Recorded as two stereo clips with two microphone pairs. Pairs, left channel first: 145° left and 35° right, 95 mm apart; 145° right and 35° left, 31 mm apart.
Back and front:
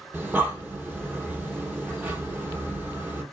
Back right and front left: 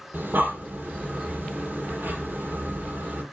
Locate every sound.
0.1 s breathing: 40° left, 2.5 m